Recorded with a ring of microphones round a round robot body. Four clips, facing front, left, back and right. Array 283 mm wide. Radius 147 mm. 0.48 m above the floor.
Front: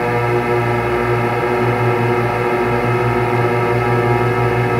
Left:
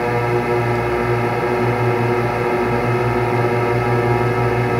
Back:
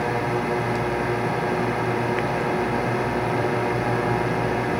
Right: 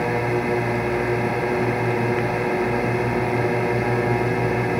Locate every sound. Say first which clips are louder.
0.0 s a drone: left 4 dB, front 7 dB; 25° left